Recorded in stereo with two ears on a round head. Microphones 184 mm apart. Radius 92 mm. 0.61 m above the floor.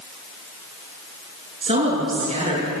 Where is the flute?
No flute in this recording.